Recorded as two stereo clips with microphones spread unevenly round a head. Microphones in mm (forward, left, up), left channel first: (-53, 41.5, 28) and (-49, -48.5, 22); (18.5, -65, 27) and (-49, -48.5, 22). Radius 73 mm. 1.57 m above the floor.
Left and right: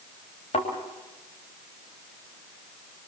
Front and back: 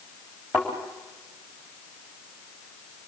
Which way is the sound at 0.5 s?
85° left.